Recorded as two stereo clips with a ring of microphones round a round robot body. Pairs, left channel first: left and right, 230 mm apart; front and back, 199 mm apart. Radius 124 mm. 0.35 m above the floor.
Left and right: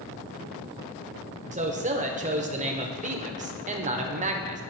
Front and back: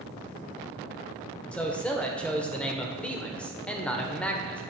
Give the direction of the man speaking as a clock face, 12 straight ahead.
3 o'clock.